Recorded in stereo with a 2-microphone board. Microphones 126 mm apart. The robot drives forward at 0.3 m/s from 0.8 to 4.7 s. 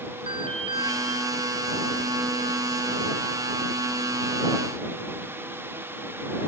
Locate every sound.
0.3 s an alarm: 45° right (ahead or behind), 3 m